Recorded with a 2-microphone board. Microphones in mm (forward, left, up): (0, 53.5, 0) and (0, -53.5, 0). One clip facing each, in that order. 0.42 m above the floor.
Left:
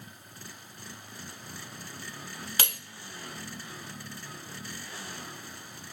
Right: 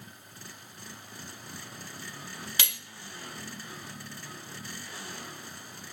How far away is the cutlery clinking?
About 0.6 m.